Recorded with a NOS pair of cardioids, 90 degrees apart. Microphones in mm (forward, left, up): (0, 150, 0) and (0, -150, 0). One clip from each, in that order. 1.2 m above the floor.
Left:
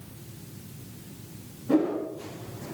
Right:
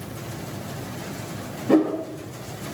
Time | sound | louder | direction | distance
1.7 | a whoosh | right 5 dB | 50° right | 4.5 m